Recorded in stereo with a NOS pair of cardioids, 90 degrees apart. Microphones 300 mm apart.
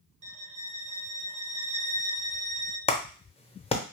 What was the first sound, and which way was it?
A violin, 25° right.